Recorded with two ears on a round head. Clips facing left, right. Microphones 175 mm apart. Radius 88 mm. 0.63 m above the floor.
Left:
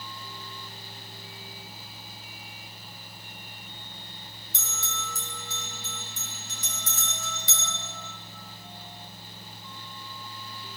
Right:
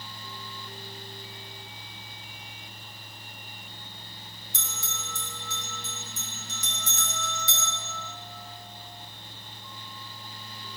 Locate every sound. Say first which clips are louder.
4.5 s a bell: left 3 dB; 70° left (ahead or behind), 4 m